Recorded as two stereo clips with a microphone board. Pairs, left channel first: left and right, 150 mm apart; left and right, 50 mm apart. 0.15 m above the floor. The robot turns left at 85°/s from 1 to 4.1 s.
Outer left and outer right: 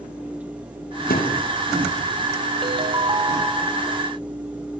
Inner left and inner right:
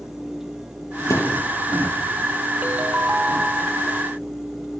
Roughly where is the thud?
Left.